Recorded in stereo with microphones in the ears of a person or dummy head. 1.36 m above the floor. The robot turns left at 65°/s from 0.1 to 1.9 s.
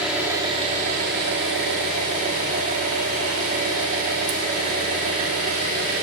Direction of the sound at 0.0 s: 5° right.